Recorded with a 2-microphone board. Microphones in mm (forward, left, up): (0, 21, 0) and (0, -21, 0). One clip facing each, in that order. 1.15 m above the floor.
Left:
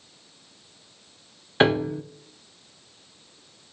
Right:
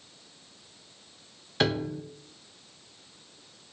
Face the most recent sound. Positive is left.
turn(degrees=30)  # may be behind; listen again after turning